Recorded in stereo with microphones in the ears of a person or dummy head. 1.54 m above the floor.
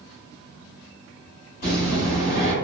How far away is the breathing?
About 1.8 m.